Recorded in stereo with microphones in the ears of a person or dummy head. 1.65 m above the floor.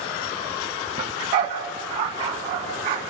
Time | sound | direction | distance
1.0 | a dog barking | 30° right (ahead or behind) | 2.5 m